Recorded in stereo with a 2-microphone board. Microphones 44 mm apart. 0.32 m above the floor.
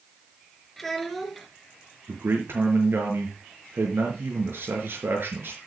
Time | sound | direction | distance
0.8 | a child speaking | 5° left (ahead or behind) | 3 m
2.1 | a man speaking | 65° right (ahead or behind) | 5 m